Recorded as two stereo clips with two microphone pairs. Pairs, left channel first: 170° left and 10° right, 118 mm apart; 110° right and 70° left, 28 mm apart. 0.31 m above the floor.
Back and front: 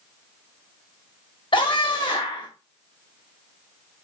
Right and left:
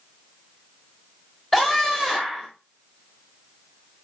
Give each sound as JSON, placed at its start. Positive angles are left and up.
{"t": 1.5, "sound": "a scream", "azimuth_deg": 165, "distance_m": 1.8}